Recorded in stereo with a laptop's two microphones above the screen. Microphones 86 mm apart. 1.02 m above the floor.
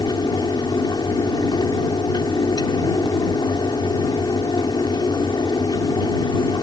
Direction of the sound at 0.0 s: 60° left (ahead or behind).